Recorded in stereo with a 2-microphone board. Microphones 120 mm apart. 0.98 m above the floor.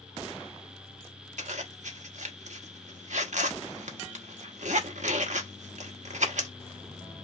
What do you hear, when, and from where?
1.4 s a zipper: 80° right, 0.9 m